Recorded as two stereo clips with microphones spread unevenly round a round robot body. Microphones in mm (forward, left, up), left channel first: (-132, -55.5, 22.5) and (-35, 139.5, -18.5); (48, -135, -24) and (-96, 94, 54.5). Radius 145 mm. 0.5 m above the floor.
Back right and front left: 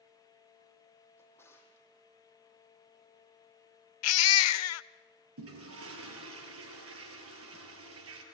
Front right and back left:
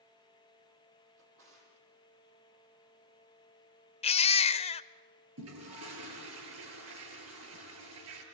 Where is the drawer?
165° left, 6.5 m.